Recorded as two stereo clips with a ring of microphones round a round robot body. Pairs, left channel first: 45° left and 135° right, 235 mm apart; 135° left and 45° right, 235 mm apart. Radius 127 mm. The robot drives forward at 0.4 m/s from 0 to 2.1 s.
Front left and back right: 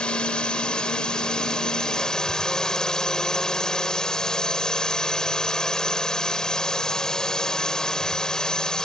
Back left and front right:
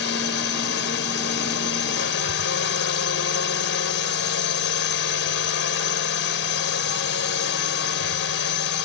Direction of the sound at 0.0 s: 130° left.